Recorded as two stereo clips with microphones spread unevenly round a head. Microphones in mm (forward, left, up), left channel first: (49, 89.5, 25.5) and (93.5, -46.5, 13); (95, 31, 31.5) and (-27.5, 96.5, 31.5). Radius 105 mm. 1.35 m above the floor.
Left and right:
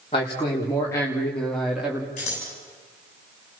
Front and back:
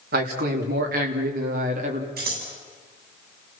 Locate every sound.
0.1 s a man speaking: 175° left, 3 m; by 2.1 s 155° right, 2.5 m
2.2 s scissors: 165° left, 7 m